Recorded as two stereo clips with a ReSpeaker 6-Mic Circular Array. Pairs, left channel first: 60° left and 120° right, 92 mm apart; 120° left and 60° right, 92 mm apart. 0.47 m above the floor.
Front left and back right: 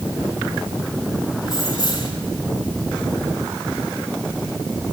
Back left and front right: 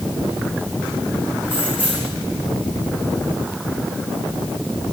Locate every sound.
1.4 s keys jangling: 10° left, 7.5 m